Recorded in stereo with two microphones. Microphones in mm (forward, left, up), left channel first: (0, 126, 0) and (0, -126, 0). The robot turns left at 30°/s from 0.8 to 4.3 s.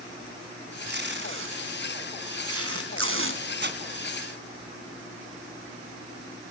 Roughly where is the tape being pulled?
Right.